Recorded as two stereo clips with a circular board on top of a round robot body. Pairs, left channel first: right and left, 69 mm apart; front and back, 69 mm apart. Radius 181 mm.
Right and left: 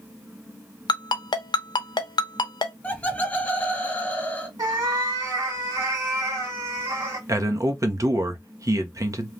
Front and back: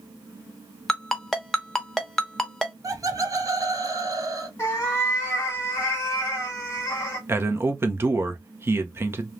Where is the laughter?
155° right, 1.3 m.